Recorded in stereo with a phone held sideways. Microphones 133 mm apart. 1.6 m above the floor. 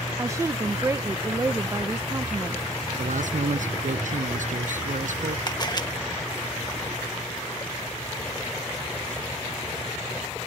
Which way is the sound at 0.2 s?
20° right (ahead or behind).